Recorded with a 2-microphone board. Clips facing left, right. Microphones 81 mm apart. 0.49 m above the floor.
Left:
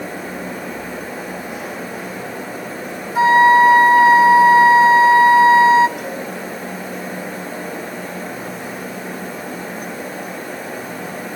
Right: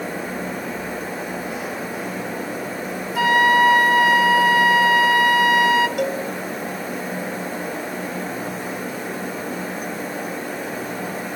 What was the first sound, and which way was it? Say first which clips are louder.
A flute: left 6 dB; 30° left (ahead or behind).